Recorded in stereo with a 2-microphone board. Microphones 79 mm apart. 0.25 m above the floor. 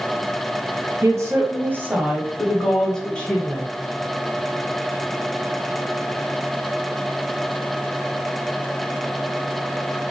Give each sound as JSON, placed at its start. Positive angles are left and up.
{"t": 1.0, "sound": "a woman speaking", "side_deg": -40, "distance_m": 1.3}